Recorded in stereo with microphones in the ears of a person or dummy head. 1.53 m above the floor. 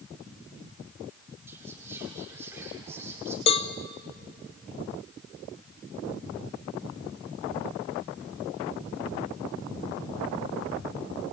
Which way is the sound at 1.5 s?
15° right (ahead or behind).